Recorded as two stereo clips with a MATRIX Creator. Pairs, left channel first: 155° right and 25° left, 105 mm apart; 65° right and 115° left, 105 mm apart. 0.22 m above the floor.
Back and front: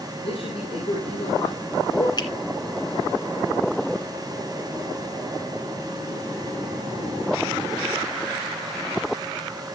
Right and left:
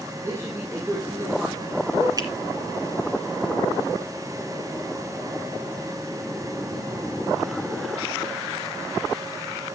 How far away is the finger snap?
About 2 m.